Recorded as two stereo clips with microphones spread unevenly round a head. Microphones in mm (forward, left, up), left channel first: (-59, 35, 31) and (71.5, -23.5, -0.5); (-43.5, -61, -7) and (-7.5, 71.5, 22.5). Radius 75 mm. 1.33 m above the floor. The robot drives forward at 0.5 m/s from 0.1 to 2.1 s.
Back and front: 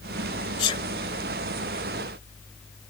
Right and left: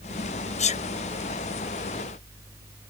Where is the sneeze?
145° right.